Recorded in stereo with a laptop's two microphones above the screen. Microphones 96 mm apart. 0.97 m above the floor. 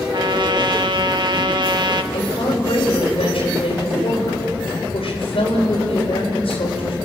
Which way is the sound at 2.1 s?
75° left (ahead or behind).